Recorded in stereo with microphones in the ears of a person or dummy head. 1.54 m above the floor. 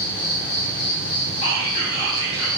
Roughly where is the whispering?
Left.